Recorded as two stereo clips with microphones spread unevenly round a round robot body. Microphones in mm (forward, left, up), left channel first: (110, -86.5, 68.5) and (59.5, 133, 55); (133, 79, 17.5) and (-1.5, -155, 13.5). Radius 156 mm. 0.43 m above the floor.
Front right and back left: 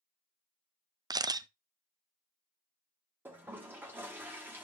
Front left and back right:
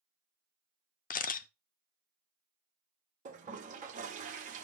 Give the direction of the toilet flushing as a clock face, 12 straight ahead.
6 o'clock.